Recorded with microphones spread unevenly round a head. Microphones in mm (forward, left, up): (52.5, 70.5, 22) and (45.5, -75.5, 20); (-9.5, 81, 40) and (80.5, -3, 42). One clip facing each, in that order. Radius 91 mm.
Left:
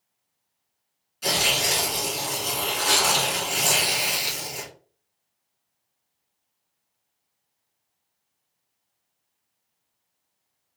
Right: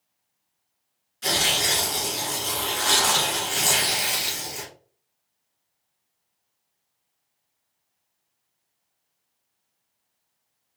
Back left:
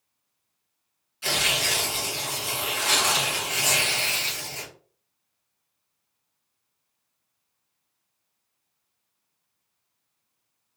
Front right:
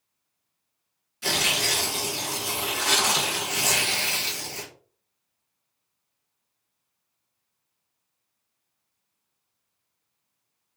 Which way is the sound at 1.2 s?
10° left.